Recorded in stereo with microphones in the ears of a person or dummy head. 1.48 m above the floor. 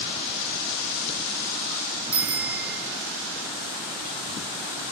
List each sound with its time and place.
2.1 s a bicycle bell: 5° right (ahead or behind), 3.5 m